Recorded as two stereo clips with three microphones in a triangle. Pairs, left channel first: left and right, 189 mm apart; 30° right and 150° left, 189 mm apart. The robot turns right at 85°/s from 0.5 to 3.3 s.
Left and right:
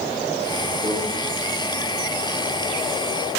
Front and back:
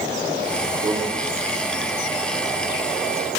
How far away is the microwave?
About 2 m.